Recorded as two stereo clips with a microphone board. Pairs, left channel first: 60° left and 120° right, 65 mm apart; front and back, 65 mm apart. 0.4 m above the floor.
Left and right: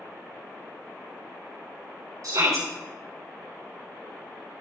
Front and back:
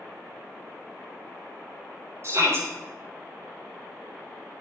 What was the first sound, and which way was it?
A shout, 140° right.